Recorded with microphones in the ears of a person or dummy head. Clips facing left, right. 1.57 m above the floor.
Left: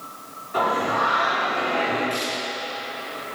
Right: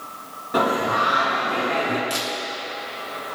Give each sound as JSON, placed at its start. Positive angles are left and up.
{"t": 0.5, "sound": "singing", "side_deg": -65, "distance_m": 2.5}
{"t": 2.1, "sound": "a camera shutter", "side_deg": -65, "distance_m": 2.5}